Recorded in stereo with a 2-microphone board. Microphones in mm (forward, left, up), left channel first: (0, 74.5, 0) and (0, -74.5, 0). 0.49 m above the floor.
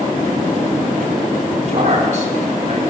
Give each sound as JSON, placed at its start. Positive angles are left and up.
{"t": 1.7, "sound": "a man speaking", "side_deg": -60, "distance_m": 4.0}